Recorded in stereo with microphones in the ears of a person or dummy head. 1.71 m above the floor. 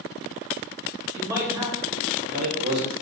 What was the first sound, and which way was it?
A man speaking, 10° right (ahead or behind).